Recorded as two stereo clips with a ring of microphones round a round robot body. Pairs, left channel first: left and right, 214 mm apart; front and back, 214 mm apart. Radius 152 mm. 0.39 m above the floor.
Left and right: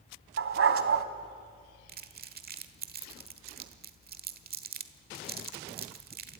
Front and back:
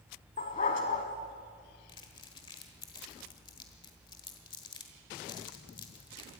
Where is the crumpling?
65° right, 1.3 m.